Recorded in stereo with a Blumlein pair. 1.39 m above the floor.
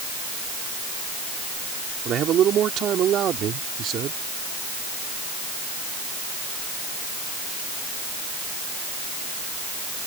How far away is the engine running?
I don't hear an engine running.